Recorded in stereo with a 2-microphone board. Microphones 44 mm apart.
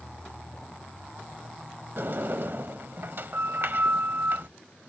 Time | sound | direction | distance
2.0 | a sliding door | 55° right (ahead or behind) | ?